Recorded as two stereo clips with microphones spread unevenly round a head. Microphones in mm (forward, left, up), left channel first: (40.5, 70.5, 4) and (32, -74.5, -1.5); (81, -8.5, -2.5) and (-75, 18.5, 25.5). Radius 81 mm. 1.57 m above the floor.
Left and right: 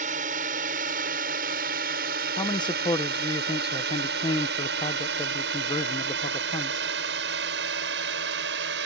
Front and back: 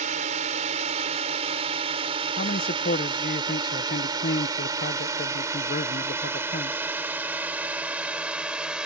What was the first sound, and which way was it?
A drone, 140° right.